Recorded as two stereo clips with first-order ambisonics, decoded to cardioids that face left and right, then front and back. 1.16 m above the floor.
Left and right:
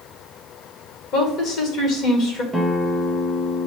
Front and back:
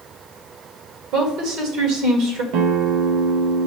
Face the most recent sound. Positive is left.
turn(degrees=-175)